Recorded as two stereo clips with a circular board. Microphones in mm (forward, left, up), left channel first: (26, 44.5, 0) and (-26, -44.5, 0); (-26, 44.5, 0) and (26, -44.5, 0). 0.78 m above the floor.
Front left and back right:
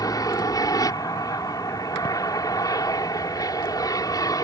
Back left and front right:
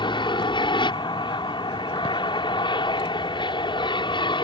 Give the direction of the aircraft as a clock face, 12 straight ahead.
9 o'clock.